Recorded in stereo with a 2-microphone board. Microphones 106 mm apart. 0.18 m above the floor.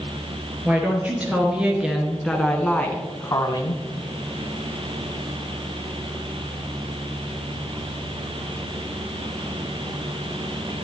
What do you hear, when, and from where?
0.7 s a woman speaking: 15° right (ahead or behind), 3 m; by 3.8 s 45° left (ahead or behind), 1.5 m